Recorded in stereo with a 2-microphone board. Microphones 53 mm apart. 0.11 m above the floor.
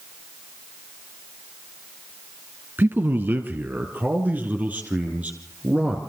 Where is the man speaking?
40° right (ahead or behind), 2.5 m; by 6.0 s 25° right (ahead or behind), 5 m.